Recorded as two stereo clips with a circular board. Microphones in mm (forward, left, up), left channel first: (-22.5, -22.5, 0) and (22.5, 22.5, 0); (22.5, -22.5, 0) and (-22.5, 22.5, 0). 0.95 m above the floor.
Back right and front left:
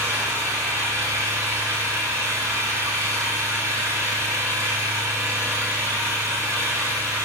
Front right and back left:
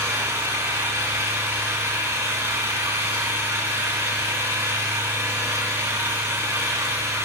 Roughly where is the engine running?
Left.